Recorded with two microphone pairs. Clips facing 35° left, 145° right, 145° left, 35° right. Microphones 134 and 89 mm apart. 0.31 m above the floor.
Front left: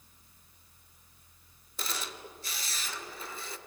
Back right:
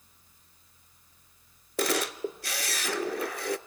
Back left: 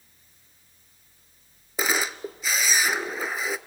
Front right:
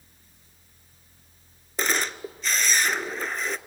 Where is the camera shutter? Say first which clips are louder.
Back right 12 dB, back left 1 dB; 130° right, 0.7 m.